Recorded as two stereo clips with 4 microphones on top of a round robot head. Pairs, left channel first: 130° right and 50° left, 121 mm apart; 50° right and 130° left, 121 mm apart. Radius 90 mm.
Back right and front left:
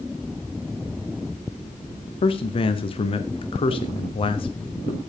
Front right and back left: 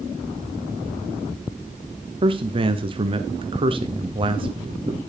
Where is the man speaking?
Straight behind, 1.1 m.